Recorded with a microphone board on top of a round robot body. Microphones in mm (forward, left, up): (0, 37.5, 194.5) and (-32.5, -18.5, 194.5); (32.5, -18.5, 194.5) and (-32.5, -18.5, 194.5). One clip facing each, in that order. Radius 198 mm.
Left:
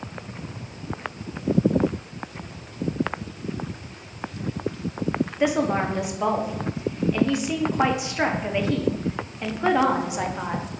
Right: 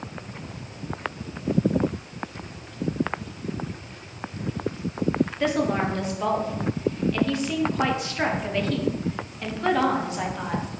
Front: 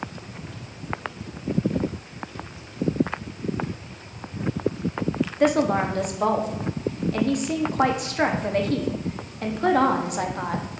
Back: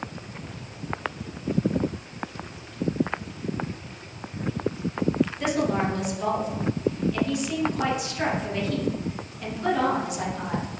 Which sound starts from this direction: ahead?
A woman speaking, at 5.4 s.